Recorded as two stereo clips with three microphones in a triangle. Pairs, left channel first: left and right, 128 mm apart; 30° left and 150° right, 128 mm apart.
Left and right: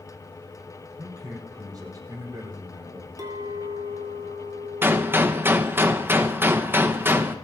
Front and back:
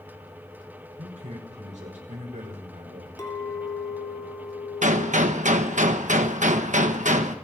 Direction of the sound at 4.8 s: 165° right.